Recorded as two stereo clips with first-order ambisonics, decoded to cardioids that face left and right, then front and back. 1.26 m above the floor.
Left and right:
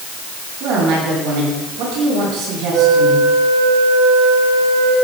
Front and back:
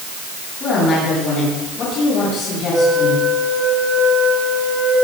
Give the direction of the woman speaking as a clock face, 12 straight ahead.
2 o'clock.